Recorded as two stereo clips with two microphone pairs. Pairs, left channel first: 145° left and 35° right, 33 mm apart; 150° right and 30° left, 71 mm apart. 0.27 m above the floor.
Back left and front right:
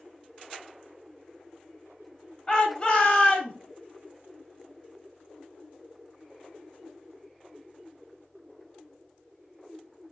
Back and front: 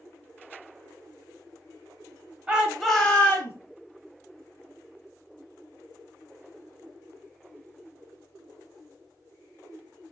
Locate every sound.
2.5 s a shout: 95° left, 1.1 m; by 3.5 s 170° left, 1.2 m